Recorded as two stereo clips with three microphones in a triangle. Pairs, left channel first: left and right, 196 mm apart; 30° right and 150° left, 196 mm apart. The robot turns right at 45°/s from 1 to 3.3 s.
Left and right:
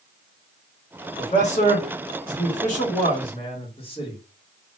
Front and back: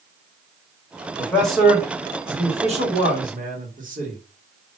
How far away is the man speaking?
About 1.2 m.